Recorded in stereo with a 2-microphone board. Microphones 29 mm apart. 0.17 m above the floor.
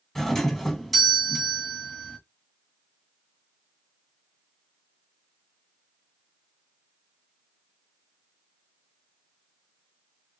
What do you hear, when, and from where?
0.1 s a doorbell: 10° left (ahead or behind), 1.6 m